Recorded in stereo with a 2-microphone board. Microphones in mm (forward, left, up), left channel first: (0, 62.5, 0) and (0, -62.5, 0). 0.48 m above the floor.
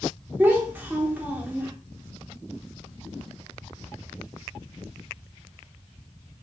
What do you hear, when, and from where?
0.4 s a child speaking: 15° right (ahead or behind), 0.6 m